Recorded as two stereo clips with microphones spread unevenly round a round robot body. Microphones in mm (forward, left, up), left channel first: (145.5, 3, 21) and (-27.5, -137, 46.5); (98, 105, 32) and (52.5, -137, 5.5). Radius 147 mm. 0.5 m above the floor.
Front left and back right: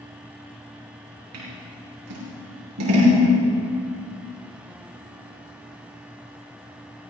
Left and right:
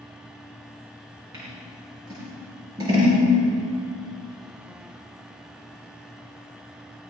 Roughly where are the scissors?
Behind.